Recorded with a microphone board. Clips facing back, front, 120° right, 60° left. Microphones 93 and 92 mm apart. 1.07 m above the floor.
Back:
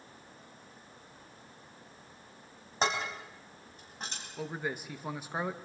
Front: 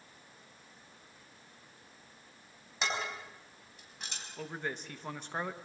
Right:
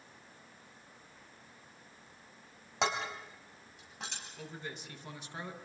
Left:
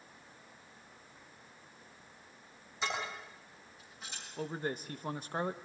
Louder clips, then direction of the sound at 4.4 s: Back 3 dB, left 9 dB; 100° left.